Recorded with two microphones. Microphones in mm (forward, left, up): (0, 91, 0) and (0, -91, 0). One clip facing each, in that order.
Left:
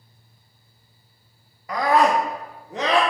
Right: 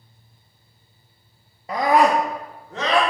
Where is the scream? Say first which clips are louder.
Right 1 dB; 25° right (ahead or behind), 1.0 m; by 3.0 s 20° left (ahead or behind), 1.7 m.